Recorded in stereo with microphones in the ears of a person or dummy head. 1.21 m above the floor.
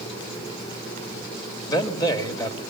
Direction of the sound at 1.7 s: 25° left (ahead or behind).